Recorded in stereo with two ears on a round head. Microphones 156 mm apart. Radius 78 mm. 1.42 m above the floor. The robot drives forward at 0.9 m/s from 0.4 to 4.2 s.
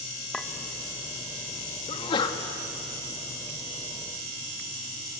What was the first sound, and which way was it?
A clink, 5° left (ahead or behind).